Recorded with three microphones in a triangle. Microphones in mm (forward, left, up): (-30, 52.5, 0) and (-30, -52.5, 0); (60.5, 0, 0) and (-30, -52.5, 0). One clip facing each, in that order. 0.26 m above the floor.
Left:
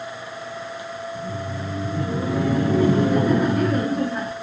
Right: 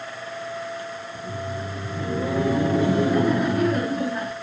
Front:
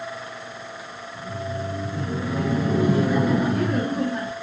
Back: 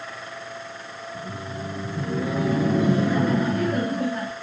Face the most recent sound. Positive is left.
turn(degrees=-10)